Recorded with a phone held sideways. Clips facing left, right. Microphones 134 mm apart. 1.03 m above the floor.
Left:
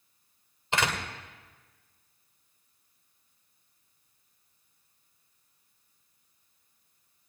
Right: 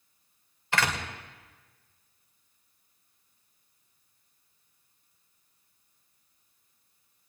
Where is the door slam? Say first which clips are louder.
Even; 20° left (ahead or behind), 2.5 m.